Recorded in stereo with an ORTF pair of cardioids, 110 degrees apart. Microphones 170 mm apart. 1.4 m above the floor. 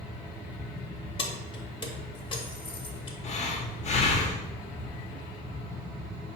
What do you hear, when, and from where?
0.0 s a fan: 5° left, 0.9 m
1.2 s keys jangling: 30° left, 0.8 m
3.2 s breathing: 45° left, 0.7 m